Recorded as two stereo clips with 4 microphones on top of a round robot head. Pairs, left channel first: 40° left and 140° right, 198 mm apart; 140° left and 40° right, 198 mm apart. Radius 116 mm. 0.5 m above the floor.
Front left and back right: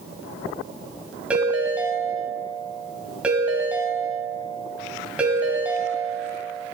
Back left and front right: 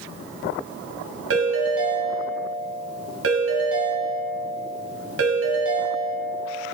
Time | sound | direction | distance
1.3 | a ringtone | 55° right | 2.5 m